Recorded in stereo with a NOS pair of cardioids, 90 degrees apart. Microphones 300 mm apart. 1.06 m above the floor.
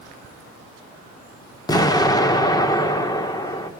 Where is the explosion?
10° left, 1.8 m.